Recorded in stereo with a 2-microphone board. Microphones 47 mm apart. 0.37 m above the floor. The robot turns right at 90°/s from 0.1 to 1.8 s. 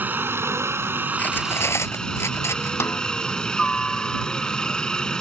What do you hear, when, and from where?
0.0 s a helicopter: 135° right; by 5.2 s 20° left
1.2 s cutlery clinking: 35° left (ahead or behind); by 2.7 s 85° left
2.8 s a snare drum: 80° left